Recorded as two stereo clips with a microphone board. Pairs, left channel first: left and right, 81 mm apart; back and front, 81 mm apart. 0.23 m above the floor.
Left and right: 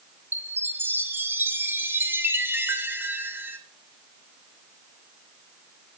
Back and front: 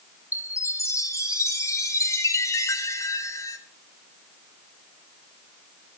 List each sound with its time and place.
0.3 s a chime: 145° right, 1.7 m